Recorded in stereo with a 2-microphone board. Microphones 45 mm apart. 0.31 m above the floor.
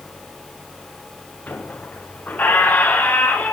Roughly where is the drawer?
I don't hear a drawer.